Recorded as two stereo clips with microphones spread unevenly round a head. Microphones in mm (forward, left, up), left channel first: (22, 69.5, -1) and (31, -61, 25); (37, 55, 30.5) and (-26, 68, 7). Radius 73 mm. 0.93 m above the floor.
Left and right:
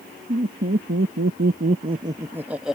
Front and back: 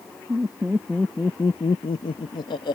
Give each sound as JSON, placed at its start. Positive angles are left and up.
{"t": 0.3, "sound": "laughter", "azimuth_deg": -125}